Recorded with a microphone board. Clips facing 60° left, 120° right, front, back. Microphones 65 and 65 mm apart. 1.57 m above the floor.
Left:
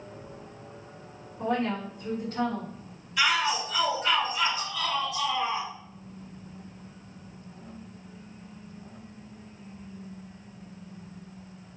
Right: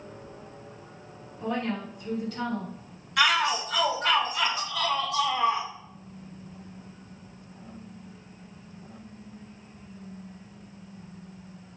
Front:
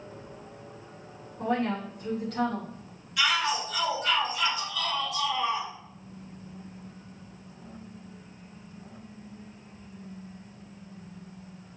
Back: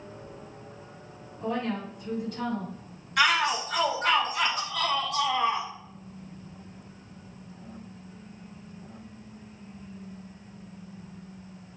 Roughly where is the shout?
Behind right.